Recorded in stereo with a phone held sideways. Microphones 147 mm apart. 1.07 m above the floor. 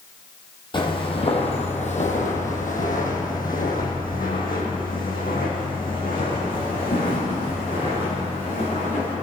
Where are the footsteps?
35° left (ahead or behind), 2.5 m; by 9.1 s 70° left (ahead or behind), 6.5 m.